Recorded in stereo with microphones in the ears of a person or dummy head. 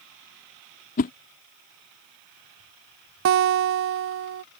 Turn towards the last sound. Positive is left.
turn(degrees=-60)  # may be behind; listen again after turning